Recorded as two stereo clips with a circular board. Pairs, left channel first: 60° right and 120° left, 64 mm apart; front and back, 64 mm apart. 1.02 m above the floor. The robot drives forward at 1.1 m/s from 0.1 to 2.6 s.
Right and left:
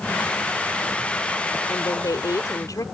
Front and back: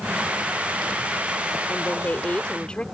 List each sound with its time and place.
1.7 s a woman speaking: 60° right; by 2.9 s 75° right